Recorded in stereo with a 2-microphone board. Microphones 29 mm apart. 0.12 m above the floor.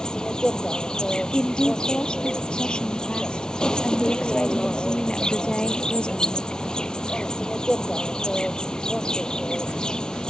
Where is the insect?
25° left (ahead or behind).